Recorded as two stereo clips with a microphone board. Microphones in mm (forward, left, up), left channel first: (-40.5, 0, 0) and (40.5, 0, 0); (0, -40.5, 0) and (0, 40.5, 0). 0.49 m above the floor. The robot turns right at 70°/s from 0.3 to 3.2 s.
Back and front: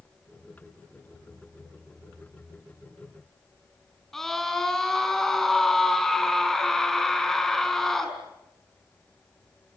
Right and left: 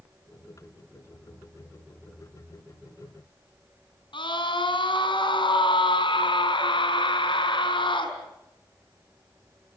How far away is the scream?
About 4 m.